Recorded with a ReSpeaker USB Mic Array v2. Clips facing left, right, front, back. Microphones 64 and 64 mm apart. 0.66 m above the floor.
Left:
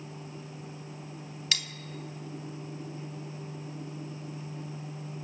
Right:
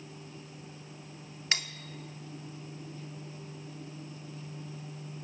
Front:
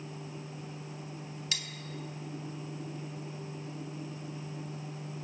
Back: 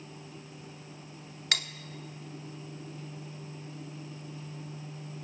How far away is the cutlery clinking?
About 0.6 m.